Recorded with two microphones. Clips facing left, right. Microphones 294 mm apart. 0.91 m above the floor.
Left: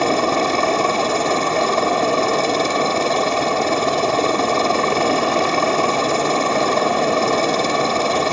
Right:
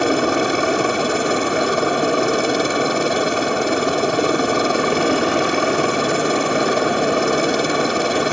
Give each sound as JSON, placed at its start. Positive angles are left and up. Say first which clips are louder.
{"t": 0.0, "sound": "a helicopter", "louder": "right 1 dB", "side_deg": -15}